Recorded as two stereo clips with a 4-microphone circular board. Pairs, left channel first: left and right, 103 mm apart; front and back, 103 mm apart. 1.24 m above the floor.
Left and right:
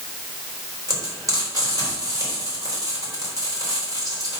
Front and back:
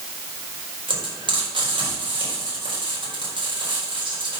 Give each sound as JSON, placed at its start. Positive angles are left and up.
{"t": 0.9, "sound": "frying", "azimuth_deg": -145, "distance_m": 4.5}